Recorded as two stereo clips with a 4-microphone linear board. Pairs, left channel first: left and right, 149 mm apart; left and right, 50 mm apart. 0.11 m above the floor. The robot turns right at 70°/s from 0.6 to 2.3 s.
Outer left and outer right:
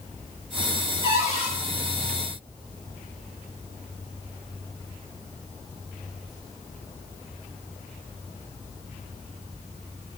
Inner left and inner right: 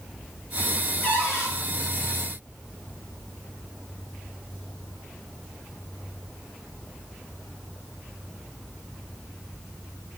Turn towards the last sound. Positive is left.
turn(degrees=120)